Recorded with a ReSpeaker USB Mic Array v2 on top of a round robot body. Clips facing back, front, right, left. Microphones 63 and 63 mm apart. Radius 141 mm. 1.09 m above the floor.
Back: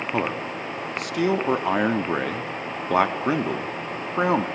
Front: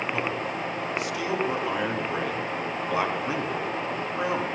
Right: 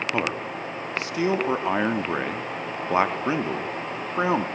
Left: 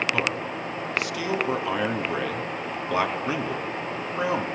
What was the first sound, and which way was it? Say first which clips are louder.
A man speaking: back 2 dB, even; 145° right.